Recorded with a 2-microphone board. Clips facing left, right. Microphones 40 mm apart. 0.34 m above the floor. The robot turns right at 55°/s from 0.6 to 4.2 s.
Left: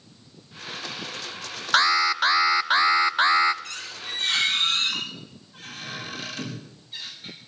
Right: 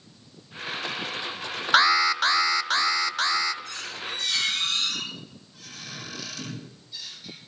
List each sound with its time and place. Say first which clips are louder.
1.7 s an alarm: right 1 dB; 5° right (ahead or behind), 0.6 m; by 3.5 s 25° left (ahead or behind), 0.6 m
3.6 s a squeak: right 1 dB; 105° left, 7.5 m; by 7.4 s 135° left, 7.5 m